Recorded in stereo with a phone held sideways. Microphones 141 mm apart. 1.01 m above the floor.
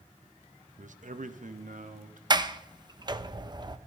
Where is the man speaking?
65° right (ahead or behind), 0.7 m; by 2.2 s 70° right (ahead or behind), 1.7 m.